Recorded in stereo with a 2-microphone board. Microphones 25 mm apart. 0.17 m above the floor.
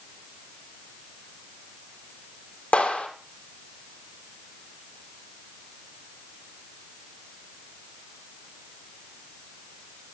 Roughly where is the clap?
Left.